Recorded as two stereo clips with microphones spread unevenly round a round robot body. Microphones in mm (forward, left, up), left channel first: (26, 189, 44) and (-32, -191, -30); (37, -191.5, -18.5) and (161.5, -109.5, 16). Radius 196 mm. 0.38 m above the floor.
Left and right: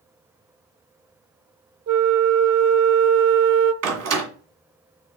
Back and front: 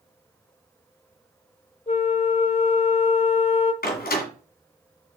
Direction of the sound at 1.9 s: 130° right.